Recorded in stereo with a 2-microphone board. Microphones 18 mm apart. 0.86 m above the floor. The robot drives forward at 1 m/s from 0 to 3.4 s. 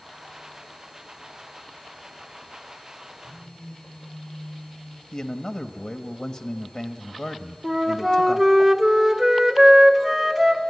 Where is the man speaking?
45° left (ahead or behind), 1.1 m.